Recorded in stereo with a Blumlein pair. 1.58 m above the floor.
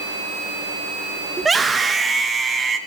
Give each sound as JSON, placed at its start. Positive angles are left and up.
{"t": 1.4, "sound": "a scream", "azimuth_deg": -10, "distance_m": 2.5}